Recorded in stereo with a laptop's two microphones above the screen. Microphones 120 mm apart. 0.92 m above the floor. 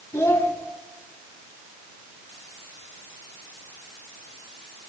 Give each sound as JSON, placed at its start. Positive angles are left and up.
{"t": 0.1, "sound": "a child speaking", "side_deg": 25, "distance_m": 1.4}